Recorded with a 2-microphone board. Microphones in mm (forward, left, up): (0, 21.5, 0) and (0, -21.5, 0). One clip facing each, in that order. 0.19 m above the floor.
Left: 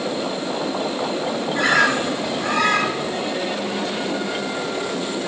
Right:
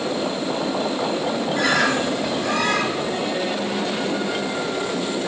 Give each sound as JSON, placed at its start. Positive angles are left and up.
{"t": 1.5, "sound": "a bird", "side_deg": 25, "distance_m": 1.4}